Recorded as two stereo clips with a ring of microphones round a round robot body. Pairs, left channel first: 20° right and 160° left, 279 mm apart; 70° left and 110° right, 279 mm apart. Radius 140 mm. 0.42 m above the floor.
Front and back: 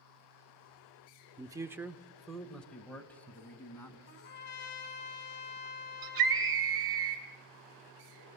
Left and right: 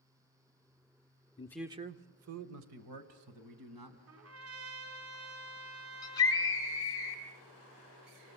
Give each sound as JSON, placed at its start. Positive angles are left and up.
{"t": 1.4, "sound": "a man speaking", "azimuth_deg": 100, "distance_m": 0.9}
{"t": 4.1, "sound": "a trumpet", "azimuth_deg": -75, "distance_m": 4.5}
{"t": 6.0, "sound": "a scream", "azimuth_deg": 145, "distance_m": 6.5}